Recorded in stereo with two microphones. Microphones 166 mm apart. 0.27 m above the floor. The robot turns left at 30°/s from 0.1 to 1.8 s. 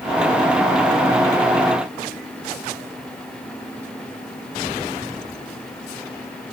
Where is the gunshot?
I don't hear a gunshot.